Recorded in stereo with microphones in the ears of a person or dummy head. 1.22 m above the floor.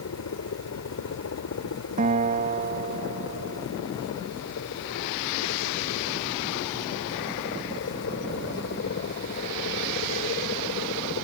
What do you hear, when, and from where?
0.0 s a helicopter: 75° left (ahead or behind); by 11.2 s 55° left (ahead or behind)
2.0 s a guitar: 40° right (ahead or behind)